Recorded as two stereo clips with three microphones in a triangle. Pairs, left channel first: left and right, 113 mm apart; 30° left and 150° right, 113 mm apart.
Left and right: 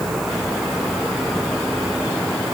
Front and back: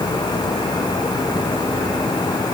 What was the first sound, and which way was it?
Only background noise.